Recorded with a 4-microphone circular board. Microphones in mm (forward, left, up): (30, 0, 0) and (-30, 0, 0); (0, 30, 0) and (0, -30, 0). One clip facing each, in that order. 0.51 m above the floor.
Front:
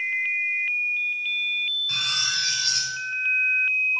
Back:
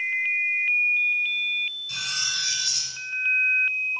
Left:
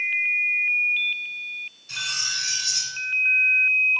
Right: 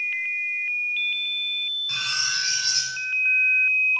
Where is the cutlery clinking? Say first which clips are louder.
Front 3 dB, right 2 dB; 40° right, 3 m.